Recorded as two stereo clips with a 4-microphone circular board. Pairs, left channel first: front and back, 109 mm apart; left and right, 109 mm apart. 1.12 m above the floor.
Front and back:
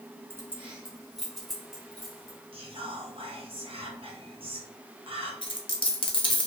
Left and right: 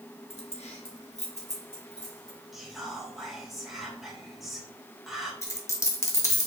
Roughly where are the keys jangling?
Behind left.